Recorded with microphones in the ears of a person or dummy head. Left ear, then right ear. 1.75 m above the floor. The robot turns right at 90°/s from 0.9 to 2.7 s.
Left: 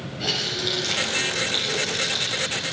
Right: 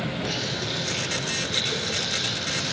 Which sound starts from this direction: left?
A running tap, at 0.2 s.